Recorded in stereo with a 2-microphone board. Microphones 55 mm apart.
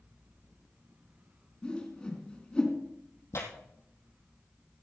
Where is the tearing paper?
60° left (ahead or behind), 2.5 m.